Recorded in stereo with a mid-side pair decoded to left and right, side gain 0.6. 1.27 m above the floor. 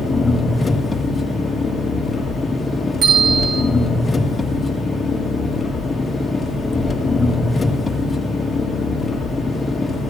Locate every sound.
0.0 s an engine running: 20° left, 1.7 m
3.0 s a bell: 60° right, 5 m